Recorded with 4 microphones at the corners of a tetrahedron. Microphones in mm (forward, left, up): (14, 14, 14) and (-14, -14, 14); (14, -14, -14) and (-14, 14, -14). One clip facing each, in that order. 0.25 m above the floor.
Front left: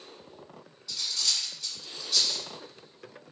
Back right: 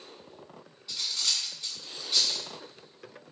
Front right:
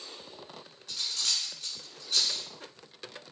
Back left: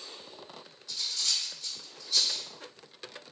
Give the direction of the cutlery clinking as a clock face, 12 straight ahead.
2 o'clock.